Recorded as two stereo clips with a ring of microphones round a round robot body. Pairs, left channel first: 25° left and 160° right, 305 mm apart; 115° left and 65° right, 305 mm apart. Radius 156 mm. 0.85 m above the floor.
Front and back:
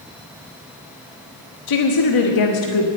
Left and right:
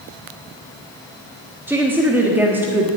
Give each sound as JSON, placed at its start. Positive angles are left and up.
{"t": 1.7, "sound": "a woman speaking", "azimuth_deg": 15, "distance_m": 1.3}